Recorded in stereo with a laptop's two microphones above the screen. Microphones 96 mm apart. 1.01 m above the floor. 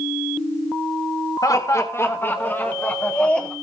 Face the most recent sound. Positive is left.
turn(degrees=10)  # may be behind; listen again after turning